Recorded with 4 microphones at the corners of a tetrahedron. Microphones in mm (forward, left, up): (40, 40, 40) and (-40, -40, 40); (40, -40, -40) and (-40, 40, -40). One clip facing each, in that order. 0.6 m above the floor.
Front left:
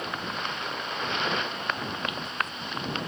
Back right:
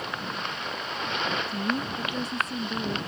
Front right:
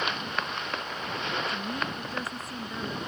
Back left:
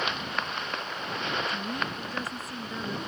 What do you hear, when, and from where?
1.5 s a woman speaking: 135° right